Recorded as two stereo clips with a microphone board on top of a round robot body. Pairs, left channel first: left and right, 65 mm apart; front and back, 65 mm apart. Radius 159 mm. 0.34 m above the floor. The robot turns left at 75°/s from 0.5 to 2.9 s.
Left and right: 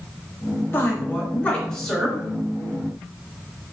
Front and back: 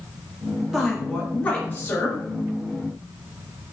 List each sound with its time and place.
0.7 s a woman speaking: 95° left, 1.5 m; by 2.2 s 15° right, 1.5 m